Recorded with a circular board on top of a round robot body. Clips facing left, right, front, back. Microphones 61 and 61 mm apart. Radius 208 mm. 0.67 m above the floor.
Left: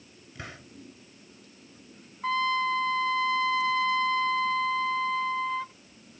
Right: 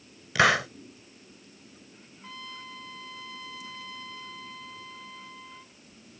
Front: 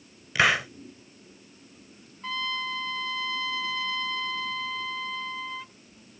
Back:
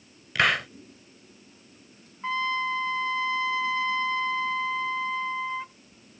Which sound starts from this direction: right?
A hiss, at 0.3 s.